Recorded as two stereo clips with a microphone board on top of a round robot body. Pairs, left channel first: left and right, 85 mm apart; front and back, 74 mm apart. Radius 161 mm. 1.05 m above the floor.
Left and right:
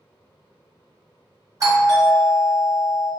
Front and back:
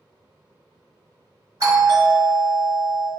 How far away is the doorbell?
About 1.9 m.